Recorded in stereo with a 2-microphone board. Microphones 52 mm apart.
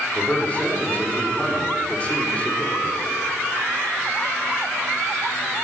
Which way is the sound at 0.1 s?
25° left (ahead or behind).